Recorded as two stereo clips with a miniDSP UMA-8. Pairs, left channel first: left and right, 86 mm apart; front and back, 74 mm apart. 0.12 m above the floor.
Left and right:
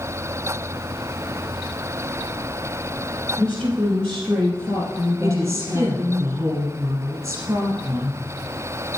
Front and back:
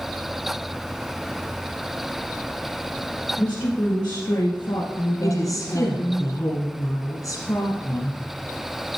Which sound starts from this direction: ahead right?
A woman speaking, at 5.2 s.